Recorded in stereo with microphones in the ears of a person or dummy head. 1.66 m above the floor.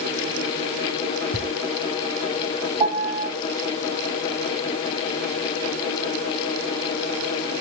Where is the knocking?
25° left (ahead or behind), 1.4 m.